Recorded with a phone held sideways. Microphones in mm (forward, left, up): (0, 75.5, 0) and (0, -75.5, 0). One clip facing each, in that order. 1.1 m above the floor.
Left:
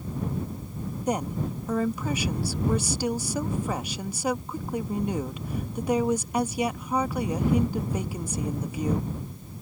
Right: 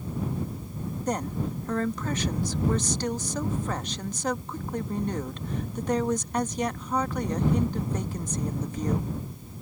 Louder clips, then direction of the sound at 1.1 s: Left 2 dB; 10° left (ahead or behind).